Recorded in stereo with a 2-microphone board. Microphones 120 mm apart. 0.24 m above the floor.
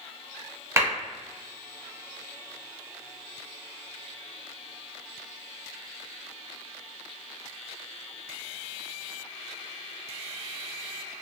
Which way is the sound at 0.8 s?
25° right (ahead or behind).